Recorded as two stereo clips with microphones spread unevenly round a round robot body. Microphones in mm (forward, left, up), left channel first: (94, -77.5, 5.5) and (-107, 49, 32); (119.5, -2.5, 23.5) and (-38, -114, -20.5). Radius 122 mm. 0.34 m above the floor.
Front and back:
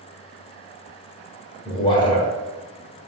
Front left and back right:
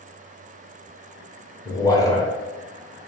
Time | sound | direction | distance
1.6 | a man speaking | 45° right | 0.9 m